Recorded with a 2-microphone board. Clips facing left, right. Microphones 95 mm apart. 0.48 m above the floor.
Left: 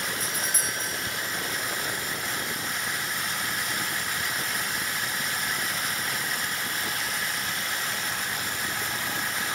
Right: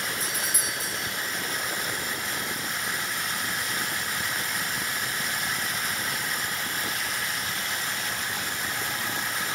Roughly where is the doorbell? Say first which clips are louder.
Even; centre.